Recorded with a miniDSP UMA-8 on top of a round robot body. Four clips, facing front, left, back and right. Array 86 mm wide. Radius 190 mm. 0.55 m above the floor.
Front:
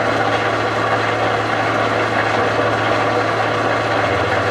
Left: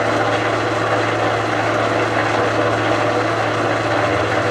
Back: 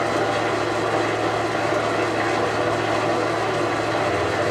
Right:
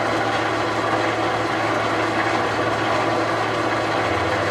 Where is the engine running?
40° left, 2 m.